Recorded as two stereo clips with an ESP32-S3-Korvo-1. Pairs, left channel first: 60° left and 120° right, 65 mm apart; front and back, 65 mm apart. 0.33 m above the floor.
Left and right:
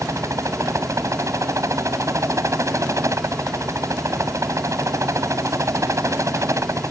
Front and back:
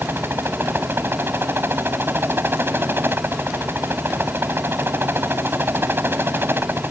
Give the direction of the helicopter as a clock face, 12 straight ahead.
5 o'clock.